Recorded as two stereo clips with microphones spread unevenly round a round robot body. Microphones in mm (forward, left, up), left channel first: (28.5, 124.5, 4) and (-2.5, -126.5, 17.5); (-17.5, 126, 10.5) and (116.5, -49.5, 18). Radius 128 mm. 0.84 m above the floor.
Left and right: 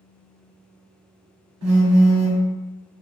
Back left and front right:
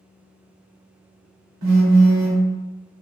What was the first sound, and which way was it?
A phone buzzing, 65° right.